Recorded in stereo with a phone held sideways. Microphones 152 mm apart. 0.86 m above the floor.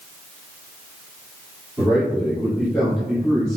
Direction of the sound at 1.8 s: 10° right (ahead or behind).